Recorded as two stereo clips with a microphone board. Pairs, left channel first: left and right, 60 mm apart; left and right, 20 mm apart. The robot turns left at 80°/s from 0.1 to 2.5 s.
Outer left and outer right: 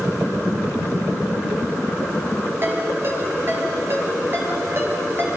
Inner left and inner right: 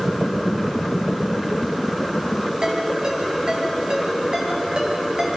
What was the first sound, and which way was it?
A ringtone, 45° right (ahead or behind).